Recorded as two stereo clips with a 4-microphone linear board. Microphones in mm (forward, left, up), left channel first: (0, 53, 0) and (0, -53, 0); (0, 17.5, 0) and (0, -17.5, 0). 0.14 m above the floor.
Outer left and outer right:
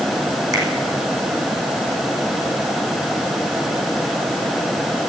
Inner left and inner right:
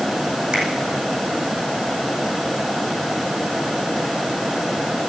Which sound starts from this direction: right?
A finger snap, at 0.5 s.